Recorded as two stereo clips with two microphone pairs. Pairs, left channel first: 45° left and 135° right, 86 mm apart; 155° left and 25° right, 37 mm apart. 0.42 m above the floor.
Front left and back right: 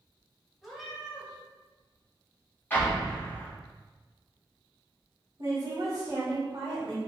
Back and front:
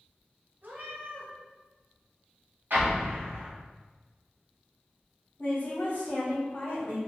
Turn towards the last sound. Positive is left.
turn(degrees=-175)